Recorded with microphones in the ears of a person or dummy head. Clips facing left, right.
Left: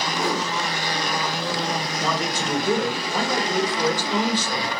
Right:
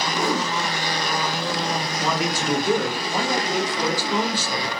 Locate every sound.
0.1 s a whoosh: 85° right, 0.9 m
2.0 s a man speaking: 10° right (ahead or behind), 0.5 m